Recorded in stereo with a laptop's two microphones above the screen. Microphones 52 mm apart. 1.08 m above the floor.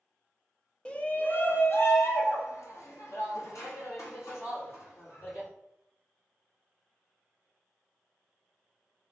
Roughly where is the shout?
Centre.